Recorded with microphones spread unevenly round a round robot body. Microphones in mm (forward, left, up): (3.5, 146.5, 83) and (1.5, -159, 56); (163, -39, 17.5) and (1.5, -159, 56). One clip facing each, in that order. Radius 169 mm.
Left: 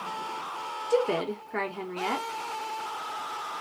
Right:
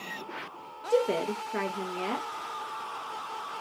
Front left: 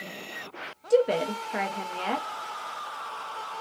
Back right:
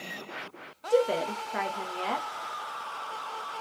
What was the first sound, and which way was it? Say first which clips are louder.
A woman speaking: even, front left 3 dB; straight ahead.